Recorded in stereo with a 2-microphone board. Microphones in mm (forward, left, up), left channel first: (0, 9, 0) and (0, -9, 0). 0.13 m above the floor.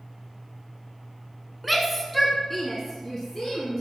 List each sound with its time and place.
1.6 s a shout: 5° right (ahead or behind), 1.1 m; by 3.8 s 10° left (ahead or behind), 1.9 m